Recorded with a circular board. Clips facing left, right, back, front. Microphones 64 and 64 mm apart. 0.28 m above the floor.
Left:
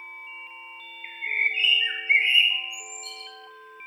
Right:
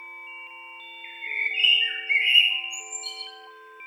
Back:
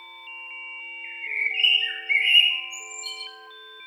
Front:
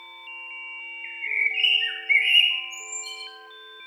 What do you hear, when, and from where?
1.0 s a bird: 55° left, 1.4 m